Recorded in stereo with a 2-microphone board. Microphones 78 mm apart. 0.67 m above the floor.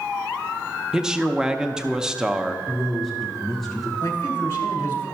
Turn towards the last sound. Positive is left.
turn(degrees=30)  # may be behind; listen again after turning